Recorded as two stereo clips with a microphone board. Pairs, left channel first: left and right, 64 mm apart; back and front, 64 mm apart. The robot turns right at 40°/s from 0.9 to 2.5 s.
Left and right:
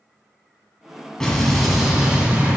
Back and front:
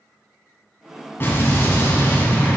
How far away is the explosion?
About 1.5 m.